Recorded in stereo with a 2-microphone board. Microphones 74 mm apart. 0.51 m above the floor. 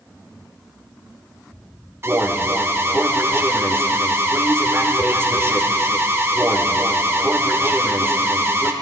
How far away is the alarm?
About 0.8 m.